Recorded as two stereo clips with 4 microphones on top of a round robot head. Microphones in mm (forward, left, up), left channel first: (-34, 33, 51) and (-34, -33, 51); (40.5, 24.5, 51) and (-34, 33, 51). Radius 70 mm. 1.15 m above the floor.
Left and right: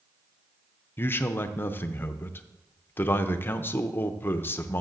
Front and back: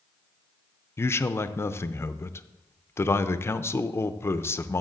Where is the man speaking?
40° left, 0.5 m.